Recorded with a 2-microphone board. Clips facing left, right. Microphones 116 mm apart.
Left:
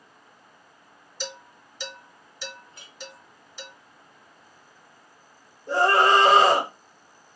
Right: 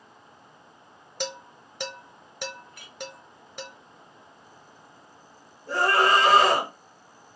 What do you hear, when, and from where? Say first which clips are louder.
1.2 s dishes clattering: right 4 dB; 60° right (ahead or behind), 0.9 m
2.7 s a clink: right 2 dB; 25° left (ahead or behind), 0.6 m
5.7 s a scream: left 3 dB; 25° left (ahead or behind), 1.5 m